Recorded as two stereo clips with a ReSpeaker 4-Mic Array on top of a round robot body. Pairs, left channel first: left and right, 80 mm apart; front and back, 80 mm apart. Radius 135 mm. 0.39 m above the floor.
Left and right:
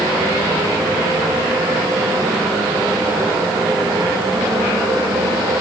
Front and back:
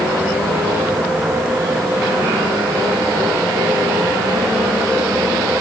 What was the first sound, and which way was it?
Only background noise.